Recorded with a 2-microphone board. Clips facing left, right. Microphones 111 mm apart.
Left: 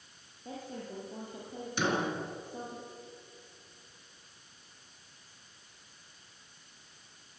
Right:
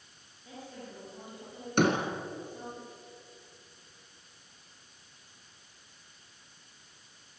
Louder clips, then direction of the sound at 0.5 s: Left 4 dB; 40° left (ahead or behind).